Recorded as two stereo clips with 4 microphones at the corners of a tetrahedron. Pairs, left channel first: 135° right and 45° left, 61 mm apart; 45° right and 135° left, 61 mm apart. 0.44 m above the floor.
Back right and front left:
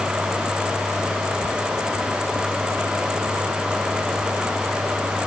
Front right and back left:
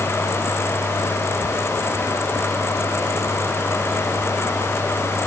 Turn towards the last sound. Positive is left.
No sound to turn to.